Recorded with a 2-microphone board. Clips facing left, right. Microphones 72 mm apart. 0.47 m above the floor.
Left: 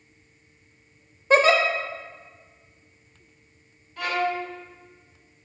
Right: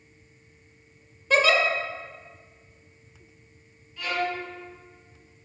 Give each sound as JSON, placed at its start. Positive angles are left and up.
{"t": 1.3, "sound": "a giggle", "side_deg": 30, "distance_m": 0.7}
{"t": 4.0, "sound": "a violin", "side_deg": 70, "distance_m": 1.6}